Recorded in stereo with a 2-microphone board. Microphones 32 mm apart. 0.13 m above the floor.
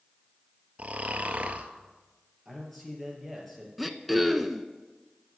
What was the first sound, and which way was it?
Snoring, 45° right (ahead or behind).